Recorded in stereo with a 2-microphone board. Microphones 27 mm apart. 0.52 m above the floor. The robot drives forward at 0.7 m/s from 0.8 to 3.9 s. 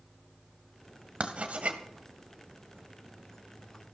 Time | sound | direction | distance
1.2 | writing | 55° right (ahead or behind) | 1.9 m